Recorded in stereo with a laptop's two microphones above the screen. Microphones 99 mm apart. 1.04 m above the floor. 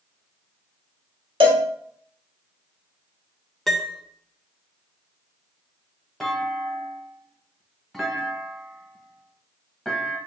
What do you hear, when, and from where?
1.4 s a cowbell: 70° right (ahead or behind), 1.4 m
3.7 s a piano: centre (ahead or behind), 0.5 m
6.2 s a clunk: centre (ahead or behind), 0.9 m